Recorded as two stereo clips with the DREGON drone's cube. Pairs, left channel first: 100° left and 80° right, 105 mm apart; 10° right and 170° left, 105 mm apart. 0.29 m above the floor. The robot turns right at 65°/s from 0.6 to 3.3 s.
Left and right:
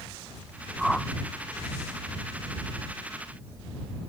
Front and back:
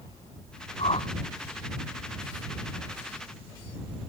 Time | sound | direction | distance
0.8 | a whoosh | 5° left | ?